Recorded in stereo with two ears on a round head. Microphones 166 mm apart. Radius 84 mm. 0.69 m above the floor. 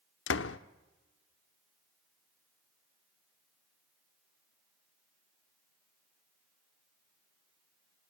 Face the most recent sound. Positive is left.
turn(degrees=80)